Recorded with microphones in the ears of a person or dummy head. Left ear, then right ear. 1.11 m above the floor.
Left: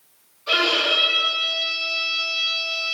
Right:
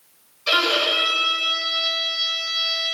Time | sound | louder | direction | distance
0.5 | a violin | even | 70° right (ahead or behind) | 2 m